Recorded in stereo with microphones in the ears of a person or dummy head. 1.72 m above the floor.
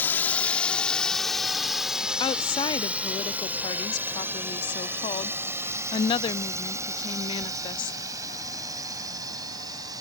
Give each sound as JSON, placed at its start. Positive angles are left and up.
{"t": 0.0, "sound": "a drone", "side_deg": 10}
{"t": 2.2, "sound": "a woman speaking", "side_deg": 25}